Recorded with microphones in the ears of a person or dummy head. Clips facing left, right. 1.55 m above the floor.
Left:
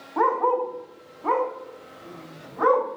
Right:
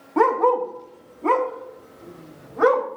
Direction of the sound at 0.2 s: 25° right (ahead or behind).